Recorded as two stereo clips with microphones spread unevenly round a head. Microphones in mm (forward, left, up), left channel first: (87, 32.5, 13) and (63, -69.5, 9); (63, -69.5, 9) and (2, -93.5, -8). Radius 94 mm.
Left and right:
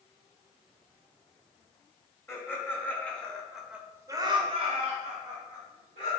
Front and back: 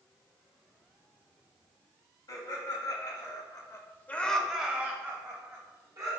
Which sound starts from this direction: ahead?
Laughter, at 2.3 s.